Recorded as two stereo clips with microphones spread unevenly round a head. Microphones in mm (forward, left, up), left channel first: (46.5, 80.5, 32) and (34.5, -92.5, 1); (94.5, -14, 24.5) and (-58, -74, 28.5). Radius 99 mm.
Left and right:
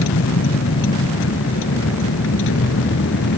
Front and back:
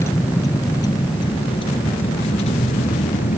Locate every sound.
0.0 s a vehicle: 100° left; by 3.4 s 75° left